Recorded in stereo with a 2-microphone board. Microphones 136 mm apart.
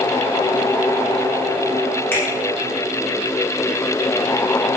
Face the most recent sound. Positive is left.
turn(degrees=15)  # may be behind; listen again after turning